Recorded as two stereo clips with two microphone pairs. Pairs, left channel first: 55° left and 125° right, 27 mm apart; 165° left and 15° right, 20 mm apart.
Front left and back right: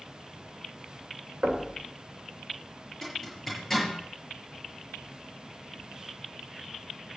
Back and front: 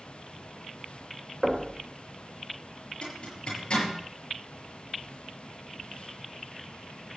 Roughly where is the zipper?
Behind left.